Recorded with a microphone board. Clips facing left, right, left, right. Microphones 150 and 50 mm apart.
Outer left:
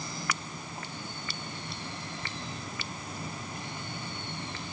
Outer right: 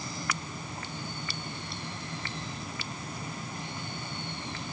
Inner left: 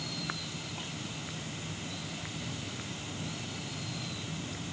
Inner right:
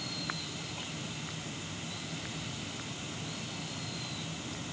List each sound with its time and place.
Only background noise.